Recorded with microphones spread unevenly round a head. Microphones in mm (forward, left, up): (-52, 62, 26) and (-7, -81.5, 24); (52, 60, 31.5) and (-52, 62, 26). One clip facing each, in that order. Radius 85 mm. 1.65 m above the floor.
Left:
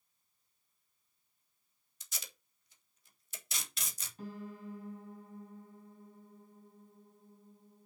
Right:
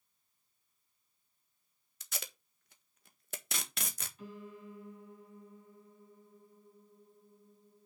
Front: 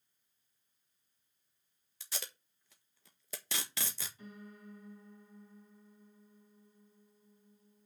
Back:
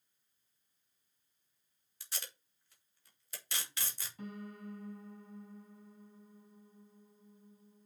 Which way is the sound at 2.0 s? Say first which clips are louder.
Right 6 dB, front 3 dB; 25° right.